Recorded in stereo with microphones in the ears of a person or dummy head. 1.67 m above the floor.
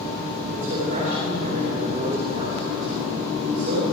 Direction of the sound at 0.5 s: 50° right (ahead or behind).